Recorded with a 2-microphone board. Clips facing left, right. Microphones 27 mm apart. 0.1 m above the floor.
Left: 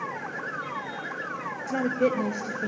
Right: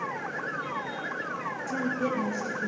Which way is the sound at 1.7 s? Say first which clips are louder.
Left 5 dB; 40° left (ahead or behind).